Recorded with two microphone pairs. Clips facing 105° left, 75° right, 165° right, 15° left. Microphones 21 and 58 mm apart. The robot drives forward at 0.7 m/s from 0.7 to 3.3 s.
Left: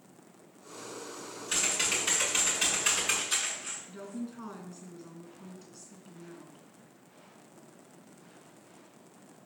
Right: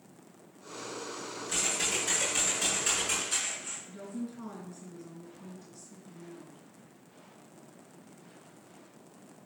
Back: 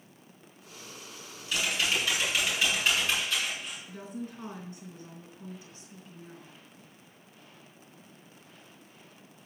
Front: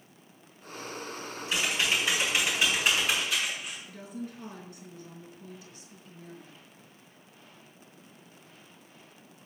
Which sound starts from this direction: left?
Typing on a keyboard, at 1.5 s.